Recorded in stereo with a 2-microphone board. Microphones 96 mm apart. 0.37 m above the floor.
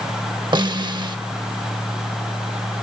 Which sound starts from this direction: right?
A snare drum, at 0.5 s.